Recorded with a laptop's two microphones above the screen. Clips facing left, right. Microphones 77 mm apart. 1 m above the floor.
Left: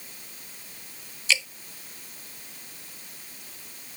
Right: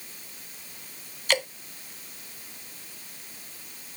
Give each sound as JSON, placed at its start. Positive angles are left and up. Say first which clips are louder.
{"t": 1.3, "sound": "dripping", "louder": "right 2 dB", "side_deg": -50}